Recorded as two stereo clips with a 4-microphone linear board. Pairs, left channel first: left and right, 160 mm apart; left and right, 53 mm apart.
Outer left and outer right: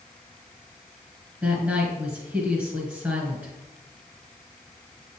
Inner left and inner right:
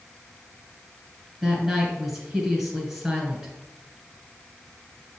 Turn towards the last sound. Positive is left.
turn(degrees=-10)  # may be behind; listen again after turning